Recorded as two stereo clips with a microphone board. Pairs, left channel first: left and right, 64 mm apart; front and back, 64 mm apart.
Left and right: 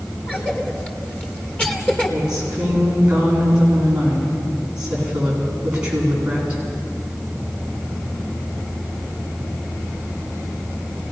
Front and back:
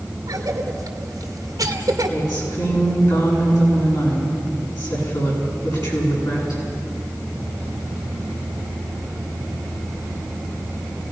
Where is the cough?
160° left, 2 m.